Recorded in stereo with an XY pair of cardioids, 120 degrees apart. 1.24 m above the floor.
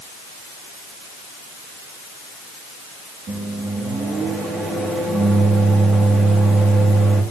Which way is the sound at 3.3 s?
40° right.